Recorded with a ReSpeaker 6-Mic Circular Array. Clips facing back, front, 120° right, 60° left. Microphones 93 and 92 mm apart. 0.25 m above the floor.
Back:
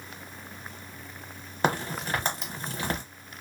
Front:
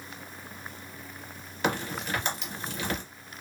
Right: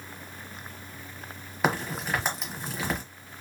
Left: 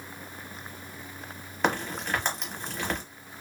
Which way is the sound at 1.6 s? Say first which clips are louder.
Back 2 dB, even; 155° left.